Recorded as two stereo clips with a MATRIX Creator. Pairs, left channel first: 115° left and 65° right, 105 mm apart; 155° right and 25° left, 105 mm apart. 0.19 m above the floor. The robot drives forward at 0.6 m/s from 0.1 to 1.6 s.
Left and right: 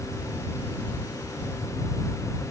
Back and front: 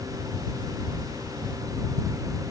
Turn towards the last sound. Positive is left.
No sound to turn to.